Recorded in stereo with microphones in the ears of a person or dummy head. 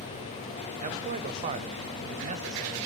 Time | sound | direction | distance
0.8 | a man speaking | 40° right (ahead or behind) | 0.9 m